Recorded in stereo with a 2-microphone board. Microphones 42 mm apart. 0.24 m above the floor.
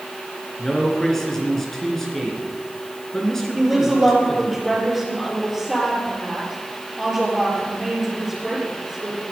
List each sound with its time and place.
0.6 s a man speaking: 10° left (ahead or behind), 3 m
3.5 s a woman speaking: 5° right (ahead or behind), 6.5 m